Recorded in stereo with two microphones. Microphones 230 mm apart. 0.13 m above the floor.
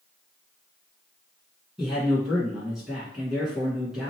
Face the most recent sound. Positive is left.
turn(degrees=0)  # may be behind; listen again after turning